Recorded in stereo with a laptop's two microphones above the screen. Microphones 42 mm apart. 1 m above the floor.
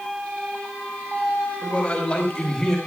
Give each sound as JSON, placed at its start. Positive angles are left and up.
{"t": 1.6, "sound": "a man speaking", "side_deg": 30, "distance_m": 5.0}